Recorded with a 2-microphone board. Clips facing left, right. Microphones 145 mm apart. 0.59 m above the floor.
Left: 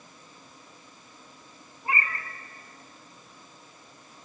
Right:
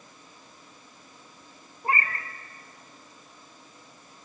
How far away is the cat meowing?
About 1.1 m.